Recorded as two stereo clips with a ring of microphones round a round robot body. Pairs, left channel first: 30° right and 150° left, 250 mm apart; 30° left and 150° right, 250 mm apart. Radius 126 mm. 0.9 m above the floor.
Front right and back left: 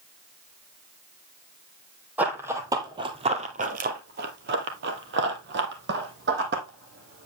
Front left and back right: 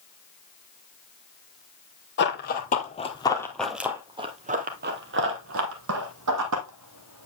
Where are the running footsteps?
65° left, 1.4 m; by 7.3 s 160° right, 2.5 m.